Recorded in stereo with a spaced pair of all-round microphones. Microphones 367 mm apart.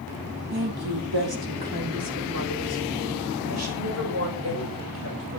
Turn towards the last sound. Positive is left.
turn(degrees=-35)  # may be behind; listen again after turning